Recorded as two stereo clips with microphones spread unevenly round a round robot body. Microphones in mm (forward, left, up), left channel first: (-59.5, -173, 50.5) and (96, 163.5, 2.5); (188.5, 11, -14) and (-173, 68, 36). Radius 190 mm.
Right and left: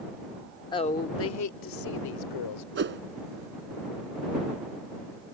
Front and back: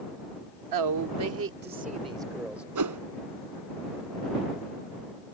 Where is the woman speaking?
165° left; by 2.6 s 95° right.